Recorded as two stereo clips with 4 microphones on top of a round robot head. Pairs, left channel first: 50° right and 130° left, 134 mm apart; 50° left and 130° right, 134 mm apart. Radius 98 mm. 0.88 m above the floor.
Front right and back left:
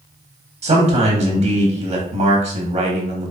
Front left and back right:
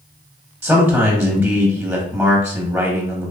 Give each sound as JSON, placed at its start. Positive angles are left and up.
{"t": 0.6, "sound": "a man speaking", "azimuth_deg": 150, "distance_m": 1.1}